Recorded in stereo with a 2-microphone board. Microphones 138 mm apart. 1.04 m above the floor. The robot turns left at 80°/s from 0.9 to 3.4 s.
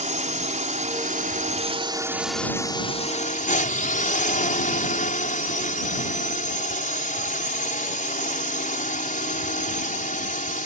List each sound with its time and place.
0.0 s a drone: 65° right; by 10.7 s 95° left